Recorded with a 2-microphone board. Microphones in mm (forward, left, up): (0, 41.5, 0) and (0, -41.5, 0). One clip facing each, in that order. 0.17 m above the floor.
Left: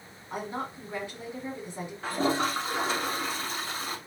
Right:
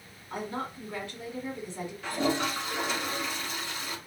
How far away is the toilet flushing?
About 1.0 m.